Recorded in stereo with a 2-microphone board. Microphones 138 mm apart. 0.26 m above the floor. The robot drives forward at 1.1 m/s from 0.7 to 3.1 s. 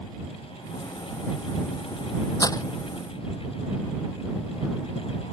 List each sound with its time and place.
2.4 s breaking glass: 25° left (ahead or behind)